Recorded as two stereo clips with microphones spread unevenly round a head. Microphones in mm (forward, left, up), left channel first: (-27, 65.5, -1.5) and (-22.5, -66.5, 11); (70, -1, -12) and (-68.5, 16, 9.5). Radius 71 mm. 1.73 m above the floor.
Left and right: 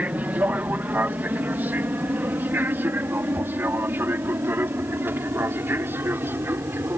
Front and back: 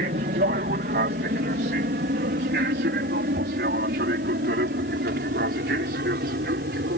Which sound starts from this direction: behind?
An aircraft, at 0.0 s.